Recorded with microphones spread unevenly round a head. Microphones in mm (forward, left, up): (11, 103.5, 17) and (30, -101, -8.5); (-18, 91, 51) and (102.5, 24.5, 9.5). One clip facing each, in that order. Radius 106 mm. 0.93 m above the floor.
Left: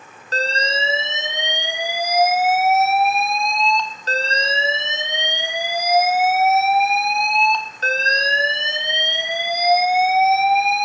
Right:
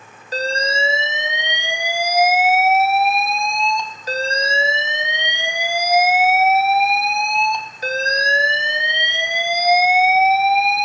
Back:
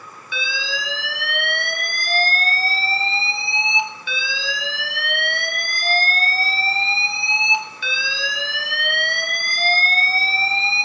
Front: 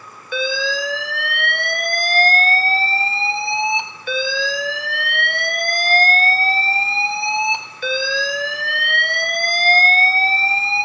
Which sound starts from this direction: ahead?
An alarm, at 0.3 s.